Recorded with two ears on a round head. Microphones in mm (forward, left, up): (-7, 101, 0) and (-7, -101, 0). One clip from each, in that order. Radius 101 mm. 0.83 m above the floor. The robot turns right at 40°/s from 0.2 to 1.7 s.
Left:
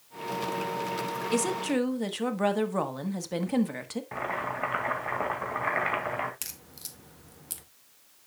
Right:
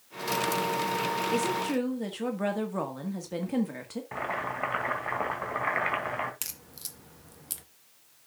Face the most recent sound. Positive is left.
turn(degrees=-5)  # may be behind; listen again after turning